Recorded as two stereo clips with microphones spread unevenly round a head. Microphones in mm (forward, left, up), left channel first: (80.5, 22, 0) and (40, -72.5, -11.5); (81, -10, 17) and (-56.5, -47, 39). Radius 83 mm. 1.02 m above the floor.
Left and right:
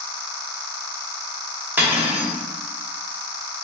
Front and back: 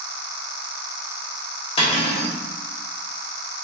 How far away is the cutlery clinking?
About 1.3 m.